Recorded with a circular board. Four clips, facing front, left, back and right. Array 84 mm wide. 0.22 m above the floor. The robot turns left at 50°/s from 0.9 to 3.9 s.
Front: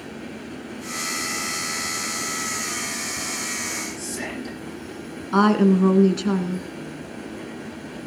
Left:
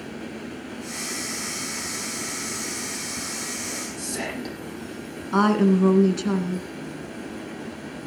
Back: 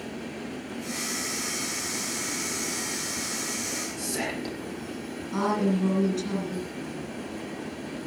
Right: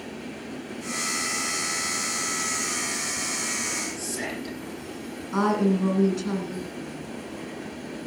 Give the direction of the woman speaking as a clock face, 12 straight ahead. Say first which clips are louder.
Left 4 dB, front 8 dB; 11 o'clock.